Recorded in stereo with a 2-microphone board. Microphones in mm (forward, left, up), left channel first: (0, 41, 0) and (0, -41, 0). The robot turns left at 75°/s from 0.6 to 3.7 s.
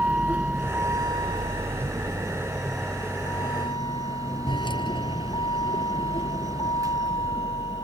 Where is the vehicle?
15° right (ahead or behind); by 7.8 s 70° left (ahead or behind).